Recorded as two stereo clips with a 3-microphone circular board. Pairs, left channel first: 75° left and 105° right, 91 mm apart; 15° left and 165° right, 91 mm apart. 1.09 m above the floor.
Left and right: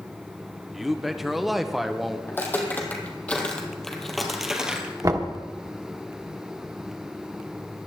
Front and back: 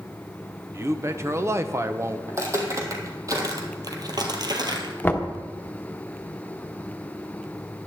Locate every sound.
0.7 s a man speaking: 170° left, 0.7 m
2.3 s footsteps: 140° left, 2.5 m; by 4.9 s straight behind, 1.6 m
5.0 s knocking: 55° right, 1.0 m